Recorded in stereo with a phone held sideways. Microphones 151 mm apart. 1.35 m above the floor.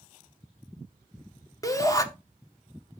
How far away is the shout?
About 0.9 m.